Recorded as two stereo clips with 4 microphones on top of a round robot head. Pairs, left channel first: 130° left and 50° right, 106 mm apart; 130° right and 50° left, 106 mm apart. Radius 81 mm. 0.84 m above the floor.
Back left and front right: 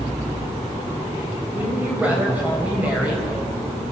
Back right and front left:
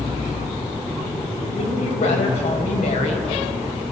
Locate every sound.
1.5 s a woman speaking: 125° right, 5 m